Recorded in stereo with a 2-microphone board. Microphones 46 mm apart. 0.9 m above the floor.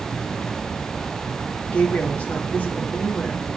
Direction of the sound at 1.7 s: 35° left (ahead or behind).